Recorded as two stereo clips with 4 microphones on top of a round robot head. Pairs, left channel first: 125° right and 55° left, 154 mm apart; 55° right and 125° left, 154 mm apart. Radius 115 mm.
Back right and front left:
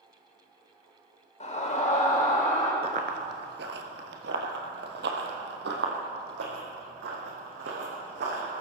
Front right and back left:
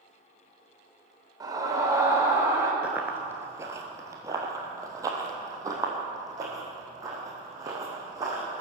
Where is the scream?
170° right, 3 m; by 2.7 s 160° right, 3.5 m.